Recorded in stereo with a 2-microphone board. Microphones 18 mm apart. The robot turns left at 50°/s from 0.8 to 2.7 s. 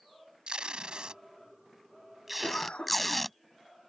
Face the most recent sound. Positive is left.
turn(degrees=85)